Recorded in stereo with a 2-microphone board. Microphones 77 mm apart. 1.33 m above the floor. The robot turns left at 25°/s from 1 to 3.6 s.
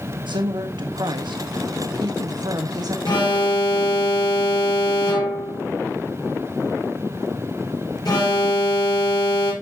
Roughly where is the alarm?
Left.